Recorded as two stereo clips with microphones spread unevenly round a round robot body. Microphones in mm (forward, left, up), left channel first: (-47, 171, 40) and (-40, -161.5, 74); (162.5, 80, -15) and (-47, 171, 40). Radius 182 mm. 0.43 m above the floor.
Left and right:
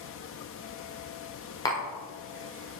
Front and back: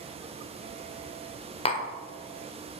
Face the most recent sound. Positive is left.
turn(degrees=20)